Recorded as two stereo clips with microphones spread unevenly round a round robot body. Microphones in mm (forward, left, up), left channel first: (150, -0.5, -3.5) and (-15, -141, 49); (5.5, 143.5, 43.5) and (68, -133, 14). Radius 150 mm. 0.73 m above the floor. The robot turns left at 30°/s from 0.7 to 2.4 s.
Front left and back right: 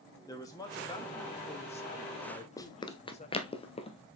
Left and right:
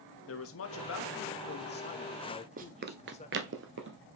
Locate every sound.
0.3 s a man speaking: 90° left, 1.2 m; by 3.5 s 40° left, 1.2 m
2.6 s running footsteps: 45° right, 0.7 m; by 4.1 s 30° right, 1.5 m